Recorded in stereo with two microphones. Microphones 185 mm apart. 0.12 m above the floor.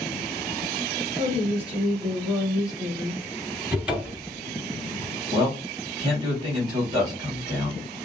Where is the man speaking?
25° right (ahead or behind), 2.5 m.